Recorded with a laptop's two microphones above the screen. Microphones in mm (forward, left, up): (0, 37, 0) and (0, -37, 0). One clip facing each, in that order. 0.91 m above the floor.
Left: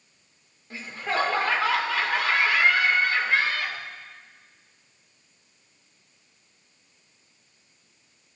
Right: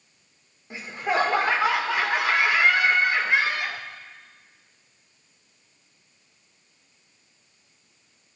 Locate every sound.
0.7 s laughter: 20° right (ahead or behind), 2.5 m